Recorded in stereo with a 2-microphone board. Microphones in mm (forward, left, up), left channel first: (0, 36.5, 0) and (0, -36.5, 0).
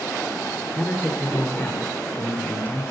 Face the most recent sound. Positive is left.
turn(degrees=30)  # may be behind; listen again after turning